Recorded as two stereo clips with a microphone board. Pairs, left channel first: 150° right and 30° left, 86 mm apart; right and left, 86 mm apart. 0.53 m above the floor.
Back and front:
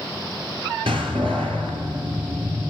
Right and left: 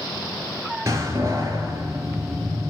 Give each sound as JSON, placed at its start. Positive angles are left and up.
{"t": 0.9, "sound": "a door slam", "azimuth_deg": 35, "distance_m": 6.0}